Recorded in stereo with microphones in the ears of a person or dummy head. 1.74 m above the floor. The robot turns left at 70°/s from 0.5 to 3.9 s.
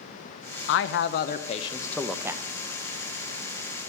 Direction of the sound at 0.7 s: 95° left.